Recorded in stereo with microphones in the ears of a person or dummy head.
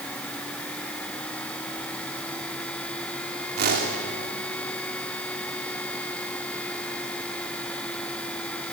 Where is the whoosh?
50° right (ahead or behind), 2.5 m.